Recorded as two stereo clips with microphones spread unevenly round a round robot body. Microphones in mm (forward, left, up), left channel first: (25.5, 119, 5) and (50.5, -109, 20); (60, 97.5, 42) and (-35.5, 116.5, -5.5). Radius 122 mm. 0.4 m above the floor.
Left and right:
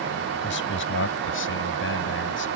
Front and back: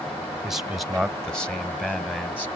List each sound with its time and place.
0.4 s a man speaking: 105° left; by 2.5 s 70° left